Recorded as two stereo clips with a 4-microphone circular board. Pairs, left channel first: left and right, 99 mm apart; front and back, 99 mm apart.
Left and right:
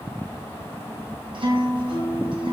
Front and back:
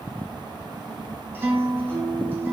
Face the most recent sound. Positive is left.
turn(degrees=-115)